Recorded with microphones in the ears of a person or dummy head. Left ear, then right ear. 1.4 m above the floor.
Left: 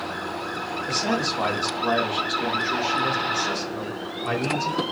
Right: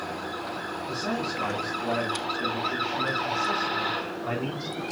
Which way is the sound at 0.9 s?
65° left (ahead or behind).